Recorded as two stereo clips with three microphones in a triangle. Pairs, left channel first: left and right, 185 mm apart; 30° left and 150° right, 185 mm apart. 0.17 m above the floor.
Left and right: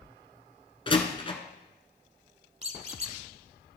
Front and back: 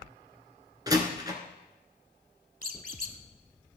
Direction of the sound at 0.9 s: 145° left.